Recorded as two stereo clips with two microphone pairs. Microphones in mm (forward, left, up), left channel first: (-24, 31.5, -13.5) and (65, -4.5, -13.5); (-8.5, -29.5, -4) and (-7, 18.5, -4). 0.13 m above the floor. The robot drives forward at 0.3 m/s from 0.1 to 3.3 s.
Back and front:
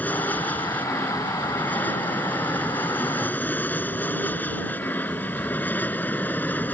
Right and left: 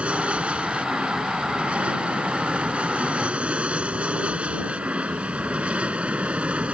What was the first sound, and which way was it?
An aircraft, 105° left.